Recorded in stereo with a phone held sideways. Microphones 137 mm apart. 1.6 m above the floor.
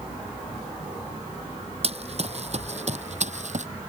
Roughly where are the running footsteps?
Right.